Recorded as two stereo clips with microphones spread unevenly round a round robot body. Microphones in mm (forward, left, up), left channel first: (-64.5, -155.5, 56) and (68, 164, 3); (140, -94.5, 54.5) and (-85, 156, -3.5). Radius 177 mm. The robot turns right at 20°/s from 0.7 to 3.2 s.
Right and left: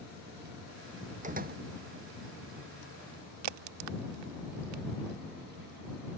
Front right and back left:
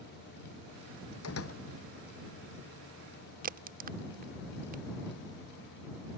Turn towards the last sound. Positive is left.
turn(degrees=70)